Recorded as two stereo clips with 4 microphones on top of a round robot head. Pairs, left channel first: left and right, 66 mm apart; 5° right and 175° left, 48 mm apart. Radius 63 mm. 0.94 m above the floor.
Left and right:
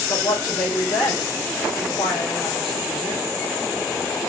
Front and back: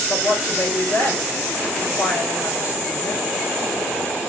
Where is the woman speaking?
5° left, 2.5 m.